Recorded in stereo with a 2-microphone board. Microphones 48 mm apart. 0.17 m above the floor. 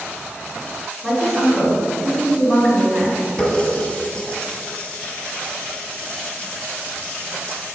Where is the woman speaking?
5° left (ahead or behind), 1.6 m.